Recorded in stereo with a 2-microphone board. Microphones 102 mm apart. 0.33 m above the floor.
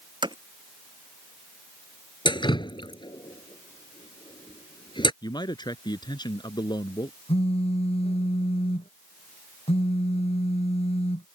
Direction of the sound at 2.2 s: 50° left (ahead or behind).